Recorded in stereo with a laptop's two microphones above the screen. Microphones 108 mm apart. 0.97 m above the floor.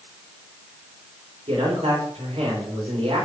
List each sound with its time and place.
1.5 s a man speaking: 70° right (ahead or behind), 2 m